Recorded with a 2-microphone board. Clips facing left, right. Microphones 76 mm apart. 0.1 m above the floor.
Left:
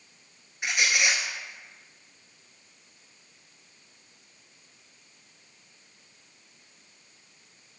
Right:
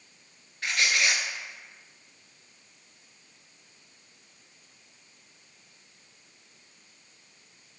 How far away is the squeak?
About 0.5 m.